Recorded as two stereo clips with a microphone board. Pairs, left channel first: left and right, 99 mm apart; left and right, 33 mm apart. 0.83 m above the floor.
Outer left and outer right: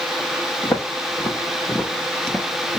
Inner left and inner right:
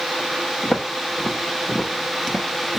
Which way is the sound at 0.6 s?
45° left (ahead or behind).